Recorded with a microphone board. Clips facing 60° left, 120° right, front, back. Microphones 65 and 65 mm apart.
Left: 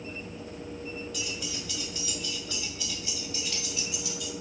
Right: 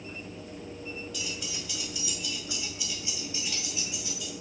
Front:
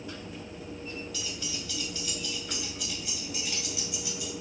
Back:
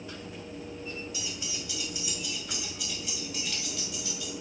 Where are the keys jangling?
150° left, 1.2 m; by 4.3 s 70° right, 1.6 m.